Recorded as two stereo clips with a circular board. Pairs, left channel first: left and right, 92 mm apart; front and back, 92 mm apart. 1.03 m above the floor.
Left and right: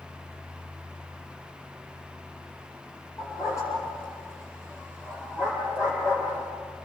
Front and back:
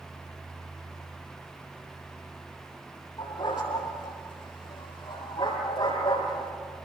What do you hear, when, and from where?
3.2 s a dog barking: 35° left, 8 m; by 6.5 s 25° left, 9.5 m